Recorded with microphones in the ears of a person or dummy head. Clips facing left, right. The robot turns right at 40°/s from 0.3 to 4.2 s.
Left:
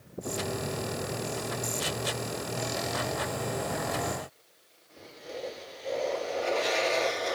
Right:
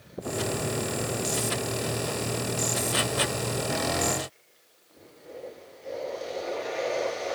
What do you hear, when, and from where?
Only background noise.